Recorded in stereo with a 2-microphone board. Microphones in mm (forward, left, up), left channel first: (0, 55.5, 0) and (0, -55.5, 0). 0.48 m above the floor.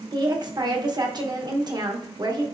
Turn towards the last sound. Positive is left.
turn(degrees=-40)  # may be behind; listen again after turning